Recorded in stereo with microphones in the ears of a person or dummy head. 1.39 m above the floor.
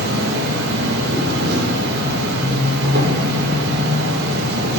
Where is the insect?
55° right (ahead or behind), 1.2 m.